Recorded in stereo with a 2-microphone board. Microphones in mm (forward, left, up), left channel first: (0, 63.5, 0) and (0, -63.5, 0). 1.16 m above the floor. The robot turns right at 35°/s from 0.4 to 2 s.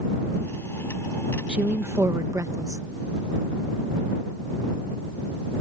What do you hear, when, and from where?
1.5 s a woman speaking: 5° right (ahead or behind); by 2.8 s 25° right (ahead or behind)